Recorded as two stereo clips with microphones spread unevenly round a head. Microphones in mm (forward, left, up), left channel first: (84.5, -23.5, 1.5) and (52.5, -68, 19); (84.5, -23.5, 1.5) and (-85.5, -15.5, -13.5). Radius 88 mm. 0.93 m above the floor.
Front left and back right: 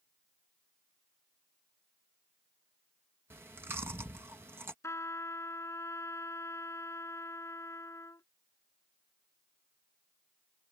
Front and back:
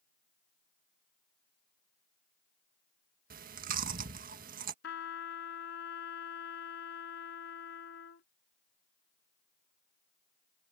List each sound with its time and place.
3.3 s chewing: 165° left
4.8 s a trumpet: 10° left